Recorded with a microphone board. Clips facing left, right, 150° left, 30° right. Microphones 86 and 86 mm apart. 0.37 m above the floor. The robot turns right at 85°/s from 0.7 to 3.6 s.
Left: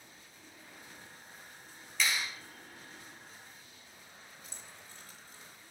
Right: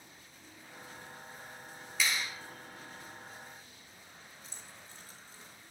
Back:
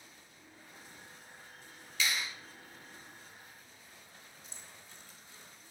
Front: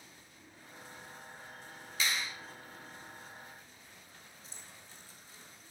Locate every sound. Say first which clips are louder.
2.0 s a clap: even, even; 5° right, 1.5 m; by 2.3 s 20° left, 1.5 m
4.4 s keys jangling: even, even; 60° right, 1.0 m